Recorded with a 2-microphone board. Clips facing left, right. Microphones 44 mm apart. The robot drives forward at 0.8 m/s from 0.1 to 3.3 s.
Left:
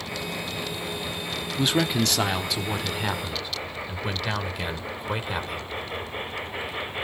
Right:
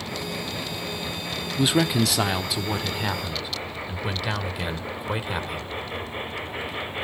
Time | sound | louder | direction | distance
1.6 | a man speaking | right 2 dB | 5° right (ahead or behind) | 0.7 m